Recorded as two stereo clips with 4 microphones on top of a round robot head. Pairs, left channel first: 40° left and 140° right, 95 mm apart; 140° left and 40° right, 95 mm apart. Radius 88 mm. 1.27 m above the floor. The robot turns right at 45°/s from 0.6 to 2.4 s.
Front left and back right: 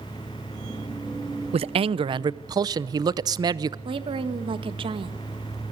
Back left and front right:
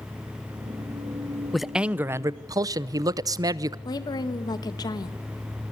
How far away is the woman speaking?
About 1.9 m.